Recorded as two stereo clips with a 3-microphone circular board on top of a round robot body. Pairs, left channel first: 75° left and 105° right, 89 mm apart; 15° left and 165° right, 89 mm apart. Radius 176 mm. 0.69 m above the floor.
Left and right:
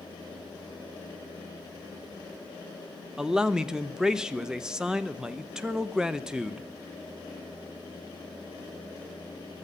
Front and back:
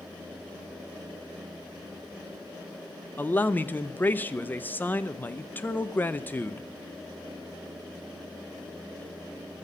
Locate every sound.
3.2 s a man speaking: 30° right, 1.0 m